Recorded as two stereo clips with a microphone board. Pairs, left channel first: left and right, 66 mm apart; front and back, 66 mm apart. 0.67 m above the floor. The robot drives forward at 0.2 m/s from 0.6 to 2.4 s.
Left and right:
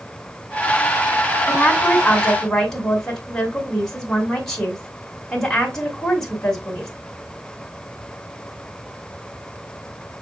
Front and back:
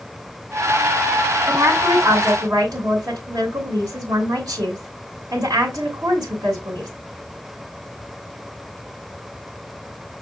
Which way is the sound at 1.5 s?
175° left.